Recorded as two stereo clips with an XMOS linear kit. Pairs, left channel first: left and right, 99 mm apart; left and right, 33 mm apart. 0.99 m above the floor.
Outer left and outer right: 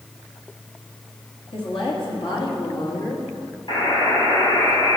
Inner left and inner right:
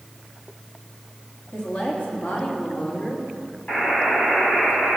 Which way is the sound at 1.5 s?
65° left (ahead or behind).